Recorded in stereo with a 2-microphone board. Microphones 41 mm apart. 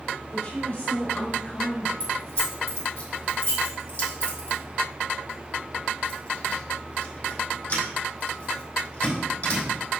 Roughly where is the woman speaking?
Left.